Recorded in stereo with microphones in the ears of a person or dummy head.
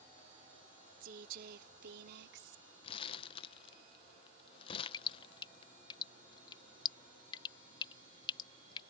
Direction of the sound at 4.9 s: 25° left (ahead or behind).